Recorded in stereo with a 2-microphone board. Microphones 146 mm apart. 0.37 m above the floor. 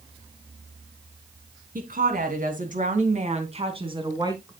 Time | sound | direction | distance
1.8 | a woman speaking | 75° right (ahead or behind) | 3 m